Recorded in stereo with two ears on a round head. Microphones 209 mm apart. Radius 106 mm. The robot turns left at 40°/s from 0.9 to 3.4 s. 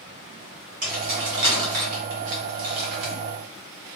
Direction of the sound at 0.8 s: 35° right (ahead or behind).